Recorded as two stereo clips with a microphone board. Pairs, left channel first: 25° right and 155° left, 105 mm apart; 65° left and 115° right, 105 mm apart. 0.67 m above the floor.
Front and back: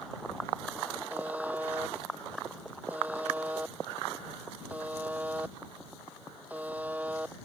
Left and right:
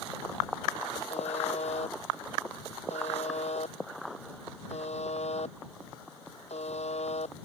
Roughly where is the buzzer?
Left.